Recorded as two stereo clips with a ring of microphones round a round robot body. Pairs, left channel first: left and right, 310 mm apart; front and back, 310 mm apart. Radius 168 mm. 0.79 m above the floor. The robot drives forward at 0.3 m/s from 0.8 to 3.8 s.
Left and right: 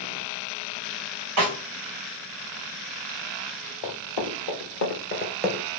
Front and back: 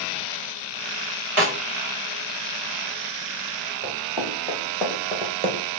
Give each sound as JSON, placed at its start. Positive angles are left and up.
{"t": 1.4, "sound": "a snare drum", "azimuth_deg": -130, "distance_m": 2.5}
{"t": 3.8, "sound": "running footsteps", "azimuth_deg": 80, "distance_m": 2.0}